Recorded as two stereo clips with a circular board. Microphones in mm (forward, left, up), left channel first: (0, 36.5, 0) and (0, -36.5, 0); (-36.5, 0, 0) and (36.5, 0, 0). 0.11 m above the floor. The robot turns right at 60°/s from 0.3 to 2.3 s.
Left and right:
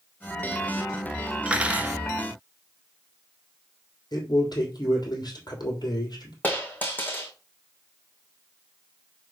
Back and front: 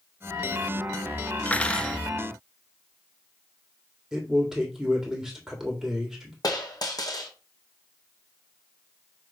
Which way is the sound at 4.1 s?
85° left.